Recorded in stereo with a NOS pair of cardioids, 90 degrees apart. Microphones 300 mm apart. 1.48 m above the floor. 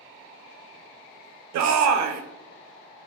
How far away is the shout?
About 0.6 m.